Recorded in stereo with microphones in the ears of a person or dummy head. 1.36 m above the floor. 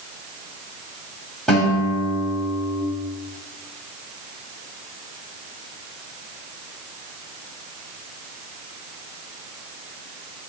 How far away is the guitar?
About 6.5 m.